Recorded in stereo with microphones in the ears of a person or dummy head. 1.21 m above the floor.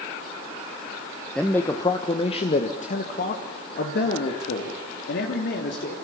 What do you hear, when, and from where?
1.4 s a man speaking: 10° left (ahead or behind), 1.2 m; by 6.0 s 65° left (ahead or behind), 3.5 m